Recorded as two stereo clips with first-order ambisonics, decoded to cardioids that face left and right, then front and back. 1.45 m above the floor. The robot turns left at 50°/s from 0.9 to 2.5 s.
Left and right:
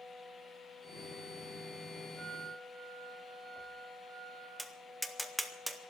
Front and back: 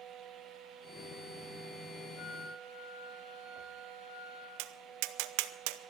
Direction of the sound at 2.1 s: 10° left.